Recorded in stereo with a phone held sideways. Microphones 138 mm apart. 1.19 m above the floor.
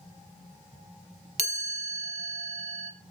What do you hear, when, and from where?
1.4 s a chime: 50° right (ahead or behind), 1.0 m